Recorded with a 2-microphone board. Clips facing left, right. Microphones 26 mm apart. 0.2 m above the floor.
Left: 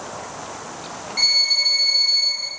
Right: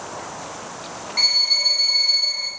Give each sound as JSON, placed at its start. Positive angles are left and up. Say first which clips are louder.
{"t": 1.2, "sound": "a violin", "louder": "even", "side_deg": -10, "distance_m": 0.6}